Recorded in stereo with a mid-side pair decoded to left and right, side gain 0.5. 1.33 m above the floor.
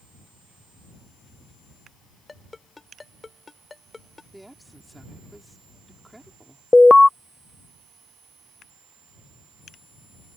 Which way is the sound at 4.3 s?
5° right.